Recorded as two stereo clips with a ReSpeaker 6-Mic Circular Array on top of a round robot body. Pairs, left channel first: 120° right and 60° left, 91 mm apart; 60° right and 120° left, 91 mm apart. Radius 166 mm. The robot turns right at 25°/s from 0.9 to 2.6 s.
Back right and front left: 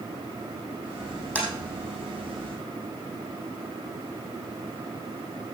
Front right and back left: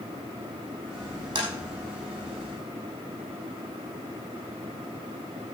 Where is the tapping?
165° left, 5 m; by 1.5 s 170° left, 5 m.